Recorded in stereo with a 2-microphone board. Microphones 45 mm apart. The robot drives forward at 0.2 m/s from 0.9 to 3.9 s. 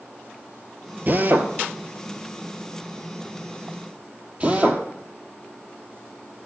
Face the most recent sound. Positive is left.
turn(degrees=-25)  # may be behind; listen again after turning